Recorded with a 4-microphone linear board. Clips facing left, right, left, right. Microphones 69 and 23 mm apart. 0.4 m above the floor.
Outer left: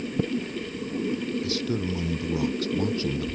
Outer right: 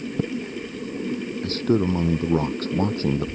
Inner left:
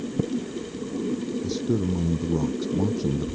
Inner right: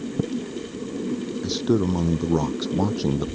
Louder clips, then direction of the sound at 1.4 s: Outer right 7 dB, inner right 6 dB; 40° right (ahead or behind).